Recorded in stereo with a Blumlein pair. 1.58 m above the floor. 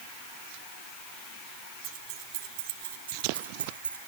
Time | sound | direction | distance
1.8 | keys jangling | 35° right | 2.5 m